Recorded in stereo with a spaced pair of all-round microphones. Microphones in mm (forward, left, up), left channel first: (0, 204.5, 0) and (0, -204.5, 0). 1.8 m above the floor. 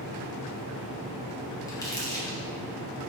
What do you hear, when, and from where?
1.7 s crumpling: 10° left (ahead or behind), 0.7 m